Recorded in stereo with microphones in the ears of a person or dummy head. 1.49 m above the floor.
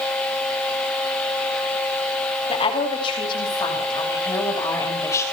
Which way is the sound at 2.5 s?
35° left (ahead or behind).